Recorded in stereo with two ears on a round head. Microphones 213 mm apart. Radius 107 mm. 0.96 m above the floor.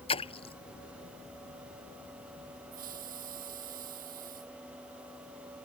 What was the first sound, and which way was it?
A splash, 25° left (ahead or behind).